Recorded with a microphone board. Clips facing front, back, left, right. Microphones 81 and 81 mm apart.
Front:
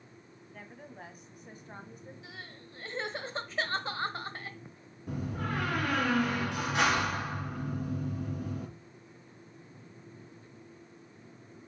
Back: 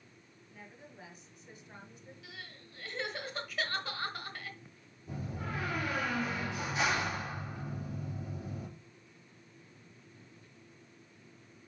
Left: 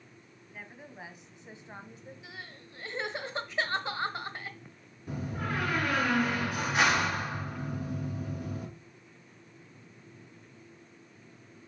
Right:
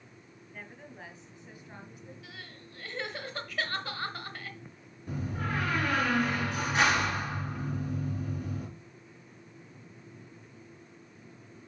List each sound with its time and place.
0.5 s a woman speaking: 5° left, 1.8 m; by 2.1 s 40° left, 1.5 m
2.2 s crying: 35° left, 1.0 m
5.1 s a door slam: 5° left, 2.5 m